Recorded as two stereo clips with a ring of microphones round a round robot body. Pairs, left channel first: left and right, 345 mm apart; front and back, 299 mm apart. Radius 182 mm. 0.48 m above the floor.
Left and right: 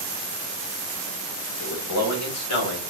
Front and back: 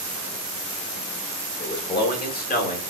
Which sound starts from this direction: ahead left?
A man speaking, at 1.6 s.